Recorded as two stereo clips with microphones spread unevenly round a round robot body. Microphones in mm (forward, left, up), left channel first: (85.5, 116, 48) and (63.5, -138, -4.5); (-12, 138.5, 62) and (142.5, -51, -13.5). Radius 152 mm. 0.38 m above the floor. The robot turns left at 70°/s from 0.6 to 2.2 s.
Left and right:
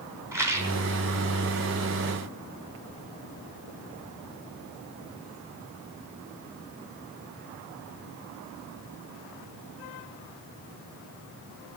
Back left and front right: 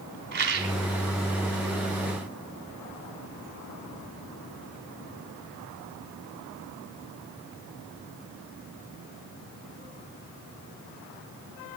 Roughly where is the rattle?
Ahead.